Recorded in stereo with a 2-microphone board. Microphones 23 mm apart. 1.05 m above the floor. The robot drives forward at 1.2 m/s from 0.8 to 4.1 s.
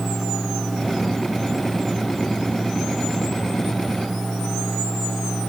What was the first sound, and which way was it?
Only background noise.